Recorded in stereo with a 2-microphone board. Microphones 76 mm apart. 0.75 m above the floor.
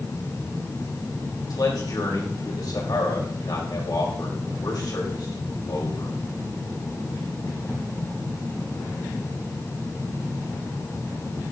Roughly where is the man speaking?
Left.